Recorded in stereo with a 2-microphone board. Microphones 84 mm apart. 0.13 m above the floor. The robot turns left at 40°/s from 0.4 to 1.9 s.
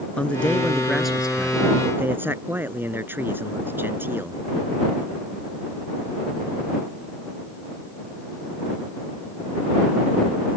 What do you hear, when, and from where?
0.2 s a man speaking: 20° left; by 4.4 s 40° right